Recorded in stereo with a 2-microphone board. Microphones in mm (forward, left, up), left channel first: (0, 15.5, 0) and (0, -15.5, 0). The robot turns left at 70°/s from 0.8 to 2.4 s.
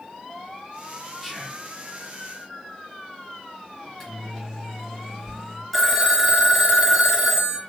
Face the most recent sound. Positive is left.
turn(degrees=-5)  # may be behind; listen again after turning